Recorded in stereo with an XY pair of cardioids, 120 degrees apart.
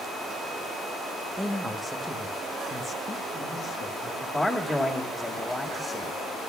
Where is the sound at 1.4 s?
10° right, 1.2 m; by 4.1 s 55° left, 2 m.